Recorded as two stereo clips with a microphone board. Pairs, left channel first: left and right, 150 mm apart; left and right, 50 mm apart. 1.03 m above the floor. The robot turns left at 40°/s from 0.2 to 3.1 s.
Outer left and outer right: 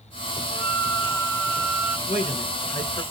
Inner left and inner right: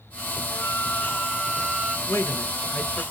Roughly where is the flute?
Ahead left.